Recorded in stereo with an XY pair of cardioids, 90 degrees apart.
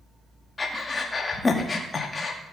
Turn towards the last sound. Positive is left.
turn(degrees=35)